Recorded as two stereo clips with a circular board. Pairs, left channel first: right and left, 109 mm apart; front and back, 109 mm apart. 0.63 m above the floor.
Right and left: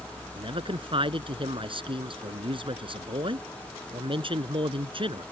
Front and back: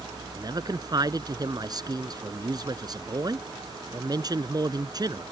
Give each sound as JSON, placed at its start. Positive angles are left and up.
{"t": 0.4, "sound": "a man speaking", "azimuth_deg": 130}